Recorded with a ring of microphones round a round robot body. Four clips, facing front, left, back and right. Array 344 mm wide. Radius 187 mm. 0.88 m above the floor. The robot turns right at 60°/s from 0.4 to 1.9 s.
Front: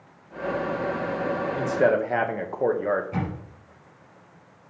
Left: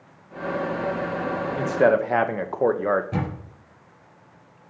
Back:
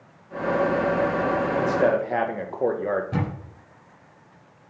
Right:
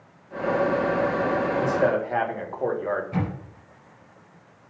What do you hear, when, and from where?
1.6 s a man speaking: 65° left, 1.1 m; by 3.0 s 85° left, 1.1 m
3.1 s a camera shutter: 140° left, 3 m